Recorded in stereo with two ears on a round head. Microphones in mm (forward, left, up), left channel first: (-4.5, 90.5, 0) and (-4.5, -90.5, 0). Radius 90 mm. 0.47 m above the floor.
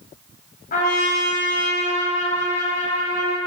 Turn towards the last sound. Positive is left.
turn(degrees=45)  # may be behind; listen again after turning